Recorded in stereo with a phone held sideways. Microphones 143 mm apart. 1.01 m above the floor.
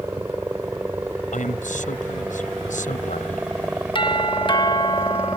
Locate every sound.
0.0 s a helicopter: 15° right (ahead or behind); by 5.4 s 10° right (ahead or behind)
1.3 s a man speaking: 65° left (ahead or behind)
4.0 s a doorbell: 35° left (ahead or behind)